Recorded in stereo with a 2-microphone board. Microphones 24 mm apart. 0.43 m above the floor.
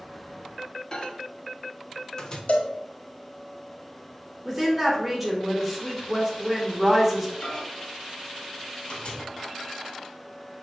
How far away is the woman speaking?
About 1.0 m.